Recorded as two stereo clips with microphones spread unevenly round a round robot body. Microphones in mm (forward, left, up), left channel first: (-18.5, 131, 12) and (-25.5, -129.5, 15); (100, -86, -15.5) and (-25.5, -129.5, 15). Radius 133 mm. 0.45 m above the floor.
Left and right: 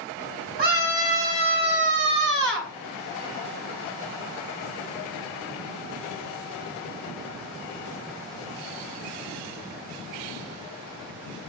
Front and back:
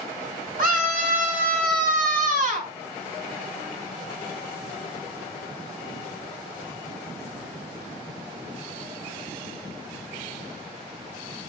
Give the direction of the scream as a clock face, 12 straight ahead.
5 o'clock.